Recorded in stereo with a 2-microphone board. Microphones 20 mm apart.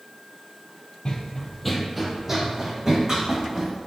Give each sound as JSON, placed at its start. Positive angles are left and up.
{"t": 1.1, "sound": "running footsteps", "side_deg": 50, "distance_m": 0.5}